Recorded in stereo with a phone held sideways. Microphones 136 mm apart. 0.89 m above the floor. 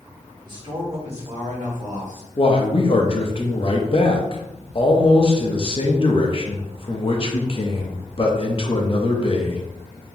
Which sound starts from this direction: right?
A man speaking, at 0.5 s.